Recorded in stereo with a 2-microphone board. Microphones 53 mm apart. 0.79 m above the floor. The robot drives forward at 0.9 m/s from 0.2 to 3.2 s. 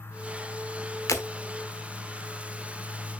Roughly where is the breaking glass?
Left.